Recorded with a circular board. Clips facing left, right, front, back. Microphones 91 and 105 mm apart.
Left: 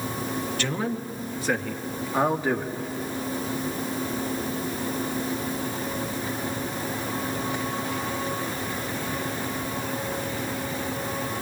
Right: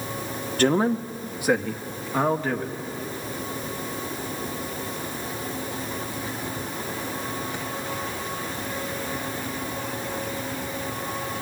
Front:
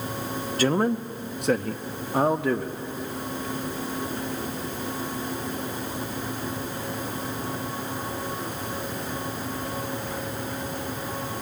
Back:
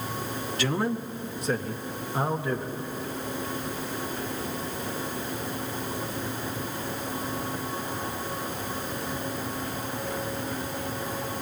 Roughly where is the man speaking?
Ahead right.